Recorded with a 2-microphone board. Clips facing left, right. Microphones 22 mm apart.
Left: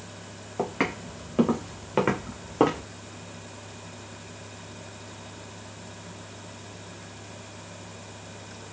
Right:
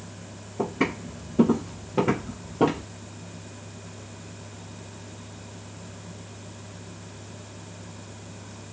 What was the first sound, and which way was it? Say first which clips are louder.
Footsteps: right 1 dB; 60° left (ahead or behind).